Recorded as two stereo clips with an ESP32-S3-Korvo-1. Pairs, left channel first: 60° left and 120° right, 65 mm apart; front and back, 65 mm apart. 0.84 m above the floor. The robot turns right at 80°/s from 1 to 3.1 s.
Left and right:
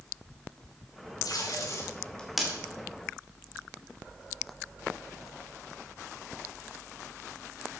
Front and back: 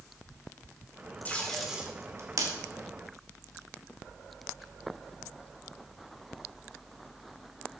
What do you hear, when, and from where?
1.2 s tape being pulled: 65° left, 2.5 m; by 2.5 s 165° left, 2.5 m